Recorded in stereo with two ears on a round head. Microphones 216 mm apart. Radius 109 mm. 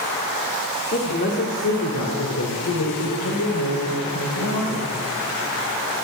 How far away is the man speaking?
About 2 m.